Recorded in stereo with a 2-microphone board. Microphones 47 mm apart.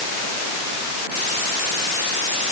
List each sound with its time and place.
Only background noise.